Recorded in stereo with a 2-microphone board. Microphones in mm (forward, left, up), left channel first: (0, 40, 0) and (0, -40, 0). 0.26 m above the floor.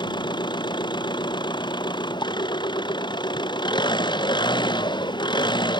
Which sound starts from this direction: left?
An engine running, at 0.0 s.